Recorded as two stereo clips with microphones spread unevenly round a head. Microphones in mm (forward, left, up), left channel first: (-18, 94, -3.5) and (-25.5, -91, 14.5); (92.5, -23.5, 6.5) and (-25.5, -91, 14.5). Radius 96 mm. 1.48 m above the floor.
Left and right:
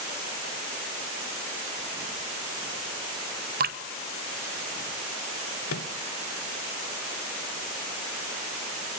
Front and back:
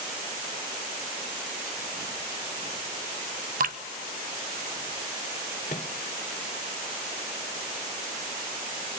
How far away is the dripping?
About 1.0 m.